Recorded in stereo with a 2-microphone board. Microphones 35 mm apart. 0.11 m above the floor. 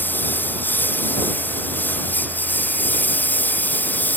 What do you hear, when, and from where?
0.0 s a lawn mower: 70° left (ahead or behind); by 4.2 s 60° left (ahead or behind)